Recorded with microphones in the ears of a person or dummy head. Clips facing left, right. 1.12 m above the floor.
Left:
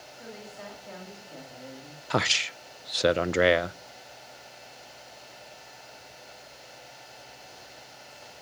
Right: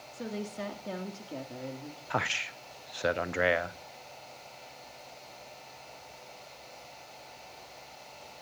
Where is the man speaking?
45° left (ahead or behind), 0.6 m.